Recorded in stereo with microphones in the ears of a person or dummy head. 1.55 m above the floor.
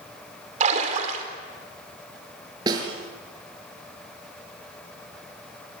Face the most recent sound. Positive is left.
turn(degrees=-25)  # may be behind; listen again after turning